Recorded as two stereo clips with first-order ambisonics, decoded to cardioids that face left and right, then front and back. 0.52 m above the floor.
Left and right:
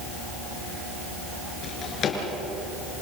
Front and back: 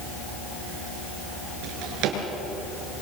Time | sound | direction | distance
1.6 | a drawer | 145° left | 4 m